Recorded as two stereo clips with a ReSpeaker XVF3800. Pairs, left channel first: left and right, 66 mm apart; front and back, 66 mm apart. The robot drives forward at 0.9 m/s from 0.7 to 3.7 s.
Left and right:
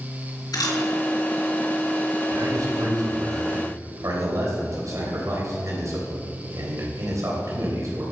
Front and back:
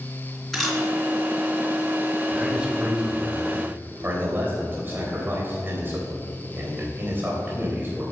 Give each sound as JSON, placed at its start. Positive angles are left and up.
{"t": 0.5, "sound": "a camera shutter", "azimuth_deg": 90, "distance_m": 3.0}
{"t": 2.3, "sound": "a man speaking", "azimuth_deg": -95, "distance_m": 2.5}